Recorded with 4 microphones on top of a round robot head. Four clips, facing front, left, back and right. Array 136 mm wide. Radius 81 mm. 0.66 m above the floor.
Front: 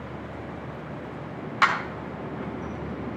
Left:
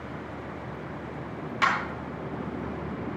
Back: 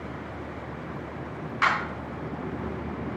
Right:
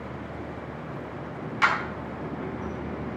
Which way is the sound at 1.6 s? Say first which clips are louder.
Right 1 dB, front 2 dB; 5° left.